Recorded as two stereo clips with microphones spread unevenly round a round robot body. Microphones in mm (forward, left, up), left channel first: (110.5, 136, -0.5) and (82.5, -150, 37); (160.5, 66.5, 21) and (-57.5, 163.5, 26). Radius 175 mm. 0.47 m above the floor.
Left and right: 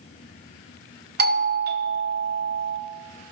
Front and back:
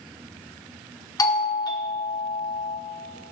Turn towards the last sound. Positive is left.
turn(degrees=-75)